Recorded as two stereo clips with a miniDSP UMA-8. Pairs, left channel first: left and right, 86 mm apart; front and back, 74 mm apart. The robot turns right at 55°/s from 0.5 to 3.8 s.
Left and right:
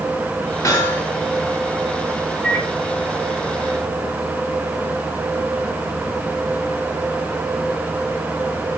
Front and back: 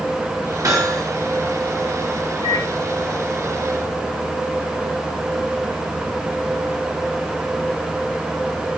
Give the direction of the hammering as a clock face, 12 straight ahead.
7 o'clock.